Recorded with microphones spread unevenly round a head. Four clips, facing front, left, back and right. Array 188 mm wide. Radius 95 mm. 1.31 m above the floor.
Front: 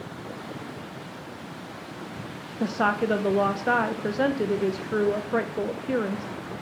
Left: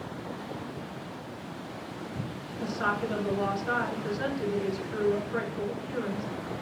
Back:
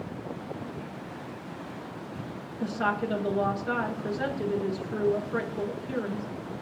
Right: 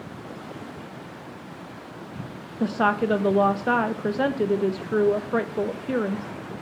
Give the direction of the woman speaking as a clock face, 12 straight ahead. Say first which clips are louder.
Right 8 dB, front 4 dB; 2 o'clock.